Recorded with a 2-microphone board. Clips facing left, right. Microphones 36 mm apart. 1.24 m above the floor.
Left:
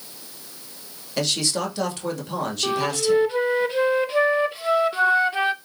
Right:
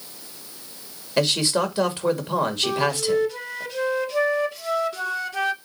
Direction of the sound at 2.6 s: 30° left (ahead or behind).